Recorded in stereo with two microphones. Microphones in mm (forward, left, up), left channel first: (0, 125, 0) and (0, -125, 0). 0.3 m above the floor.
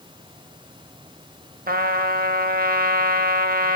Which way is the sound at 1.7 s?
40° right (ahead or behind).